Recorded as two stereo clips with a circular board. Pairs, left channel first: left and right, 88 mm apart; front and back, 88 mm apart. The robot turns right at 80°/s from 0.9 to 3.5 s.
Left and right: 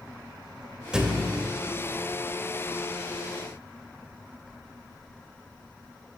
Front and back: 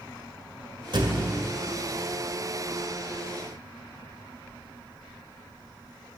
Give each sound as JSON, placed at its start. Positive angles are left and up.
{"t": 0.9, "sound": "a thud", "azimuth_deg": -170, "distance_m": 1.9}